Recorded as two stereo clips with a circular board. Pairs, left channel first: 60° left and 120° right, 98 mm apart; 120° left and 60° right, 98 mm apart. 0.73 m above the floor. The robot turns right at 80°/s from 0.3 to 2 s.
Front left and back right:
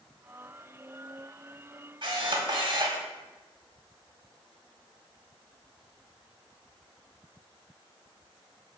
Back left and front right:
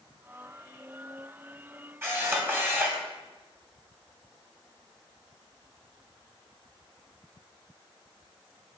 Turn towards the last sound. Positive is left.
turn(degrees=-120)